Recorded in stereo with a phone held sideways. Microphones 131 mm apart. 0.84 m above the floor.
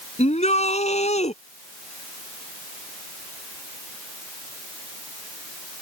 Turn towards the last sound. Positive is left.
turn(degrees=55)  # may be behind; listen again after turning